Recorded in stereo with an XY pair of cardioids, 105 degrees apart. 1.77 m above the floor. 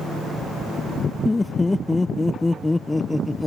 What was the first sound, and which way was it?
Laughter, 20° left.